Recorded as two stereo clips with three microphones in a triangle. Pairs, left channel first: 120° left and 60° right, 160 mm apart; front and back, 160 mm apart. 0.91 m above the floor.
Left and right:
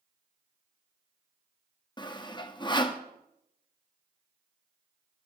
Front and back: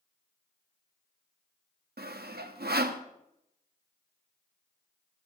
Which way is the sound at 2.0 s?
175° right.